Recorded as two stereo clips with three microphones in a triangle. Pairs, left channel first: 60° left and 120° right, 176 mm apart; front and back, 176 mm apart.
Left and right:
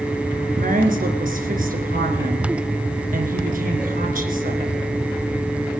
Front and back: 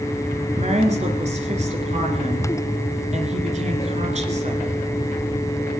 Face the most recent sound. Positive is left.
turn(degrees=-140)